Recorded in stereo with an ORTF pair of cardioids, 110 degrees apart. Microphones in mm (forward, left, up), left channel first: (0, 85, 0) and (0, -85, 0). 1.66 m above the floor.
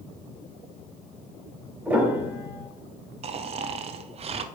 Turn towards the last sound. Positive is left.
turn(degrees=-35)